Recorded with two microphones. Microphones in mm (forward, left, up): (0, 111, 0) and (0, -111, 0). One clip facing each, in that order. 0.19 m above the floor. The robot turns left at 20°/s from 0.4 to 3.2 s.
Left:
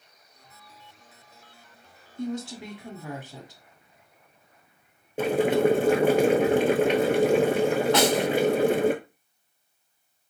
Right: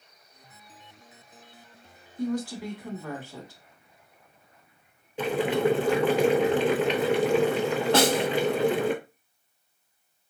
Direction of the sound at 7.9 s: 30° right (ahead or behind).